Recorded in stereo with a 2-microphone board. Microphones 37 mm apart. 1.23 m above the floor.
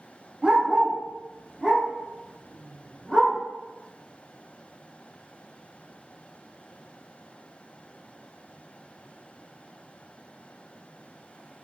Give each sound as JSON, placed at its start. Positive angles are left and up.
{"t": 0.4, "sound": "a dog barking", "side_deg": -30, "distance_m": 0.8}